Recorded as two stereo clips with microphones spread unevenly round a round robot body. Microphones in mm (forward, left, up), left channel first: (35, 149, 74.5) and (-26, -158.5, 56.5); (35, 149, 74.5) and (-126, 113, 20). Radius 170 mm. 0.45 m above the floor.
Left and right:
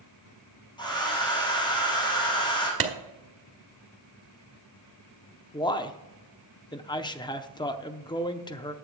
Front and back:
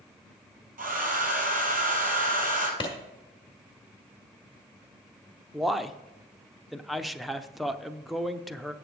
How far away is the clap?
About 1.5 m.